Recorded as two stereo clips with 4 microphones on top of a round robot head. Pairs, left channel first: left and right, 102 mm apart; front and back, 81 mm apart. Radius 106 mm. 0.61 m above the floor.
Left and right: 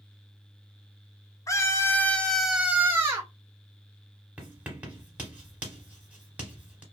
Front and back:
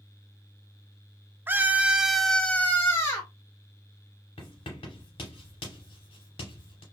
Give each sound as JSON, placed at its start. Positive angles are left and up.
{"t": 1.5, "sound": "a scream", "azimuth_deg": 130, "distance_m": 0.8}
{"t": 4.4, "sound": "writing", "azimuth_deg": -15, "distance_m": 0.8}